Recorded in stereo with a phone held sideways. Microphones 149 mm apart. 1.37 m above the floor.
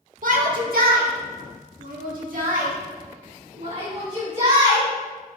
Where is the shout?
65° right (ahead or behind), 1.7 m; by 4.9 s 40° right (ahead or behind), 3.5 m.